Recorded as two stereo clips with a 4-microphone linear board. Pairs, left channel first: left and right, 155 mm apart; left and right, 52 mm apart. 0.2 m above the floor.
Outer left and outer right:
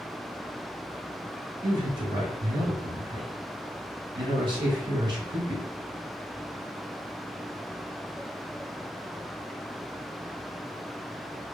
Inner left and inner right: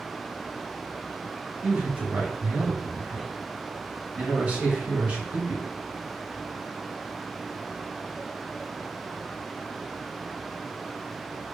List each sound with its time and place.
1.6 s a man speaking: 30° right (ahead or behind), 1.1 m